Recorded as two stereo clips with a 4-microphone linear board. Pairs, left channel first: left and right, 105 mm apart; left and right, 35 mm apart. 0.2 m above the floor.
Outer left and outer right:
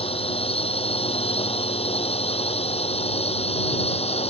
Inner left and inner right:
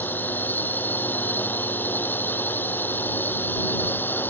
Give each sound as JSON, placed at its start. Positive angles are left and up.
{"t": 0.0, "sound": "a drone", "side_deg": 65}